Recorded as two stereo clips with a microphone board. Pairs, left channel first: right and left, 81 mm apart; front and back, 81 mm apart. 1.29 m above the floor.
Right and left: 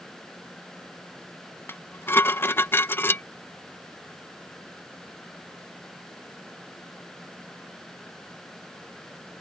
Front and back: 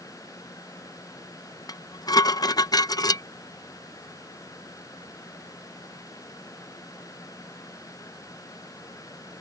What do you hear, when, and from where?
1.7 s dishes clattering: 30° right